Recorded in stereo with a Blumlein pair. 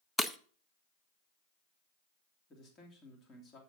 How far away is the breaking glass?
About 0.6 m.